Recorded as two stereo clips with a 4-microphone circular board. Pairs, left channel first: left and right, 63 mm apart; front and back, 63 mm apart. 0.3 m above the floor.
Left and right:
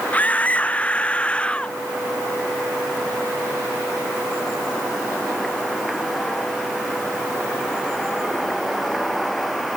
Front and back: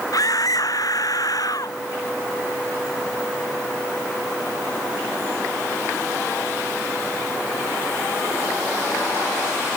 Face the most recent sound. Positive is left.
turn(degrees=15)